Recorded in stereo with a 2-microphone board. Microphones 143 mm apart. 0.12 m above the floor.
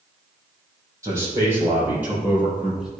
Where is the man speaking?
20° right (ahead or behind), 4 m; by 2.9 s 5° right (ahead or behind), 4 m.